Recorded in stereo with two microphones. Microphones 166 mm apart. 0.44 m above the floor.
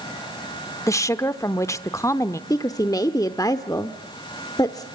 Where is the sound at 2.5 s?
20° left (ahead or behind), 0.8 m.